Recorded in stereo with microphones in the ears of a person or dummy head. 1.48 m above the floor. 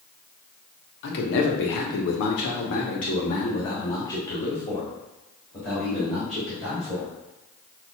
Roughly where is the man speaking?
Left.